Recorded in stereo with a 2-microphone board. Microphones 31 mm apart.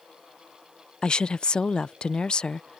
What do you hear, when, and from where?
1.0 s a woman speaking: 35° left (ahead or behind)